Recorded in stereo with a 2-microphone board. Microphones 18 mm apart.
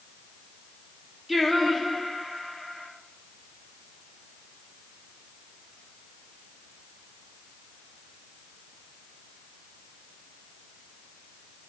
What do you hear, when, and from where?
1.3 s singing: 10° right (ahead or behind), 1.3 m